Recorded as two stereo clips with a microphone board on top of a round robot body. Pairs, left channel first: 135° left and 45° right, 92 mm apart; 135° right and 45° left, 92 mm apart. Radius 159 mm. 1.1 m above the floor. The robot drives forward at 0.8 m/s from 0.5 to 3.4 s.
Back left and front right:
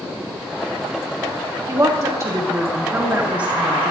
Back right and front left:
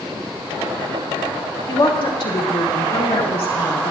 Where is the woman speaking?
95° right, 3 m; by 3.9 s 120° right, 3.5 m.